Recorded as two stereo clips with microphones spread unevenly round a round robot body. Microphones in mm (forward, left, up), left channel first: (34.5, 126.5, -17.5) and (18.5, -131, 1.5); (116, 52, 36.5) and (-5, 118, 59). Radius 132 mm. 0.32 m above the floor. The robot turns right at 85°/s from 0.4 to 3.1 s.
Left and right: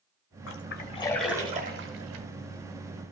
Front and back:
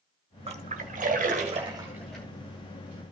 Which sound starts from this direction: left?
A splash, at 0.5 s.